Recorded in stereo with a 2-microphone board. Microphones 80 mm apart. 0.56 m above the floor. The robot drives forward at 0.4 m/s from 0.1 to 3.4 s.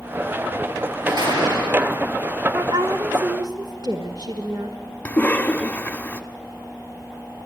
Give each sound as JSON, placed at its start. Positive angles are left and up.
{"t": 1.1, "sound": "a door slam", "side_deg": -55, "distance_m": 7.5}
{"t": 2.5, "sound": "a woman speaking", "side_deg": -65, "distance_m": 1.3}
{"t": 5.0, "sound": "a cough", "side_deg": 20, "distance_m": 1.1}